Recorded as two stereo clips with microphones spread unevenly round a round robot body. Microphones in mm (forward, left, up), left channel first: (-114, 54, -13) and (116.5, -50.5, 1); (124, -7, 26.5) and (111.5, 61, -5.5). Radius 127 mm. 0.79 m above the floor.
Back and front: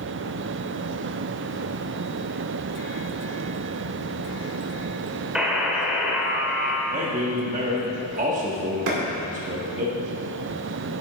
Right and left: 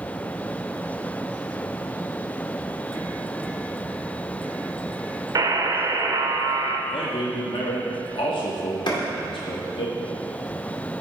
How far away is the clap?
About 2 m.